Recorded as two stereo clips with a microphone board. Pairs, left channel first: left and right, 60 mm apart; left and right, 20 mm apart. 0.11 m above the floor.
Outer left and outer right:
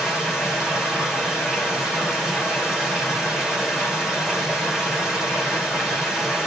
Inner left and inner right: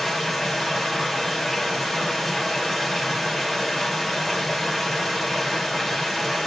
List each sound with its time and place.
0.0 s running water: 10° right (ahead or behind), 4 m